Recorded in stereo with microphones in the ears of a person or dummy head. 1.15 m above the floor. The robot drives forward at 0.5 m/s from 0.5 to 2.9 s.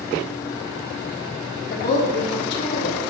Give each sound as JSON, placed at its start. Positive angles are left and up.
{"t": 1.7, "sound": "a woman speaking", "side_deg": 55, "distance_m": 2.5}